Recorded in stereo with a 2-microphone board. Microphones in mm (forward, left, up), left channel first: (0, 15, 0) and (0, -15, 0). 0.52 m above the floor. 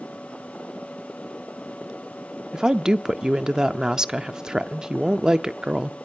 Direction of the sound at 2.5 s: 25° right (ahead or behind).